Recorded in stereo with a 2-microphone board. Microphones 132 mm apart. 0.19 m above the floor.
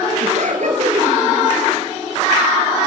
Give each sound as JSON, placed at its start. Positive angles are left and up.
{"t": 0.2, "sound": "laughter", "side_deg": -65, "distance_m": 4.5}